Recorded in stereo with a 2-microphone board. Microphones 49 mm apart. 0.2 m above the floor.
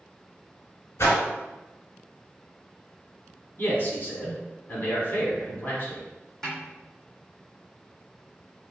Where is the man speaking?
40° left (ahead or behind), 1.3 m.